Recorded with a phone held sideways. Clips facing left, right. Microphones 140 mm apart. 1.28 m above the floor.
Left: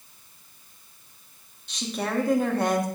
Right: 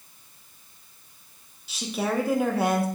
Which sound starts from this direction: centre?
A woman speaking, at 1.7 s.